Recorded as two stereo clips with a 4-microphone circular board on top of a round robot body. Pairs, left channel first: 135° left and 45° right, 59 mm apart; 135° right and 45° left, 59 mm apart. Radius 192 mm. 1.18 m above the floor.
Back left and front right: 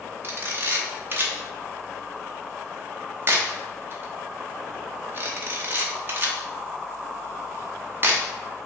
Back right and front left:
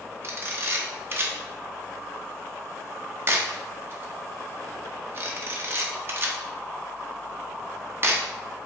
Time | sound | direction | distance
0.2 | a camera shutter | straight ahead | 0.8 m